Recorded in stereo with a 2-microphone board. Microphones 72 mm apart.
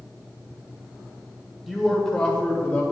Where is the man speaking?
Centre (ahead or behind), 1.4 m; by 2.8 s 25° left (ahead or behind), 1.7 m.